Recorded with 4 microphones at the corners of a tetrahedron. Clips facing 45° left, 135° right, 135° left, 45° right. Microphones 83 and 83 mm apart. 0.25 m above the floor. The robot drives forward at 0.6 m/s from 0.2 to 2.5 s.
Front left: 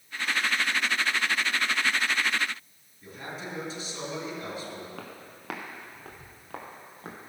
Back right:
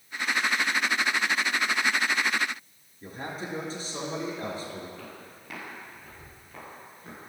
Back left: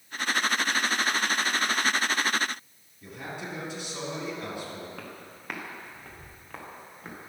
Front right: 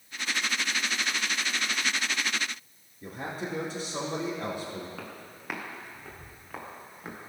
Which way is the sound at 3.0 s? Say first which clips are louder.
Back right 3 dB, front right 3 dB; 95° right.